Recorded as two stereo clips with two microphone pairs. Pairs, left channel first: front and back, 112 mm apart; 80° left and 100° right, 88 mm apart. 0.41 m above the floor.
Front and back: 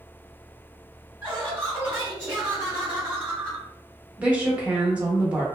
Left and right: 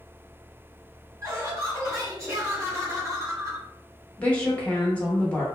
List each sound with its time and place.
1.2 s laughter: 125° right, 1.7 m
4.2 s a woman speaking: 120° left, 0.8 m